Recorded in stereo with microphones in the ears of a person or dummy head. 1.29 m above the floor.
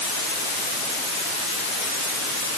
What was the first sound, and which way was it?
Only background noise.